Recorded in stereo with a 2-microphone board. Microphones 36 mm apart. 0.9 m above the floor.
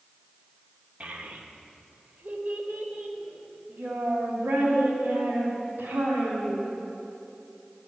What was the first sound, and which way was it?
A child speaking, 40° right (ahead or behind).